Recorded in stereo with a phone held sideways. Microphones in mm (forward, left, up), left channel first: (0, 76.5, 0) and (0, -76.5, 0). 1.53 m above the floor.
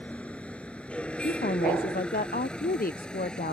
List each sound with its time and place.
0.0 s a vehicle: 10° left (ahead or behind); by 3.5 s 5° left (ahead or behind)
1.2 s a woman speaking: 70° left (ahead or behind)